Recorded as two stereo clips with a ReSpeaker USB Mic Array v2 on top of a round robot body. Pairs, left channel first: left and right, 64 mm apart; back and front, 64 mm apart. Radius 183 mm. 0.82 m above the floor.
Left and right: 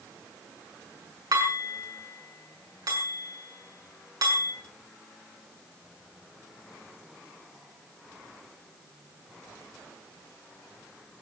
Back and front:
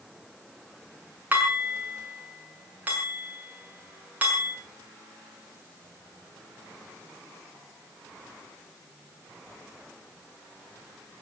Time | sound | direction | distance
1.3 | dishes clattering | 65° right | 6.5 m